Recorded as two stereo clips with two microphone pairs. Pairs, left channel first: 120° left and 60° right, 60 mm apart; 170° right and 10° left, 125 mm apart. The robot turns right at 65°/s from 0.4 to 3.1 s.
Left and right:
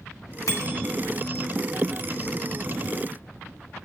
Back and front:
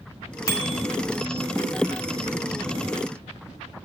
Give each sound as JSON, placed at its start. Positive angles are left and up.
{"t": 0.5, "sound": "a bicycle bell", "azimuth_deg": 135, "distance_m": 3.5}